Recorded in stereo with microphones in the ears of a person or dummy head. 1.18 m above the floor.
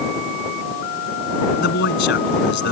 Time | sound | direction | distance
1.6 | a man speaking | 55° left (ahead or behind) | ?